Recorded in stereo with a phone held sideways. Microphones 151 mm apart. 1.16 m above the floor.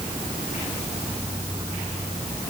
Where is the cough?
No cough in this recording.